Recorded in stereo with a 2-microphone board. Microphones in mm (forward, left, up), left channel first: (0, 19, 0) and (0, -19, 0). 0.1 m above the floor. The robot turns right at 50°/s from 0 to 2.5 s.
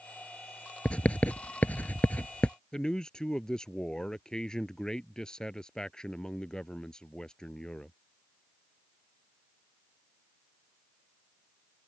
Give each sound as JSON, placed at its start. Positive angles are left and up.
{"t": 0.8, "sound": "writing", "side_deg": 30}
{"t": 2.7, "sound": "a man speaking", "side_deg": 20}